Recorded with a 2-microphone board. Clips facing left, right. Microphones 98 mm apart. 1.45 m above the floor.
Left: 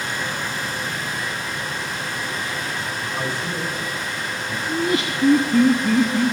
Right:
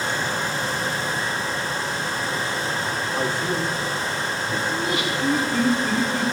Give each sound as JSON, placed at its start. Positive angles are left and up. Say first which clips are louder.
{"t": 3.1, "sound": "a man speaking", "louder": "right 3 dB", "side_deg": -35, "distance_m": 5.5}
{"t": 4.7, "sound": "laughter", "louder": "left 2 dB", "side_deg": 35, "distance_m": 3.0}